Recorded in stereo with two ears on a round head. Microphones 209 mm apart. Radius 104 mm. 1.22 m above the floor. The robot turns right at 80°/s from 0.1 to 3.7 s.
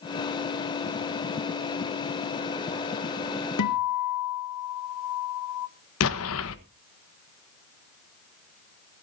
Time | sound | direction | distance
3.6 | a guitar | 80° left | 1.1 m
6.0 | an explosion | 65° left (ahead or behind) | 1.2 m